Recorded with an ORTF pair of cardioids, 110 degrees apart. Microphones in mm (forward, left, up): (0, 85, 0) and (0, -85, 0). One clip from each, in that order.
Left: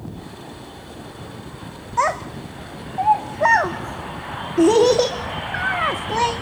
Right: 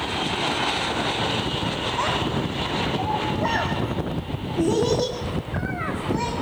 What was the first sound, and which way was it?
A child speaking, 50° left.